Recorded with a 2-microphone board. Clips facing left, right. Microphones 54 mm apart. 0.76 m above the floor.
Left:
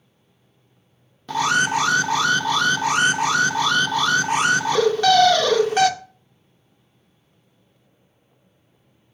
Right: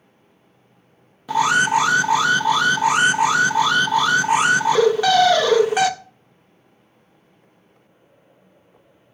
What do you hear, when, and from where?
1.3 s an alarm: 10° right (ahead or behind), 0.5 m